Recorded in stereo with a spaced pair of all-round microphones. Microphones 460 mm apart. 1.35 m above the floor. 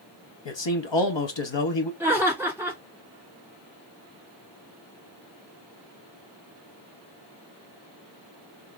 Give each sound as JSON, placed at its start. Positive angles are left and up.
{"t": 0.5, "sound": "a man speaking", "side_deg": 65, "distance_m": 0.8}
{"t": 2.0, "sound": "laughter", "side_deg": -5, "distance_m": 1.9}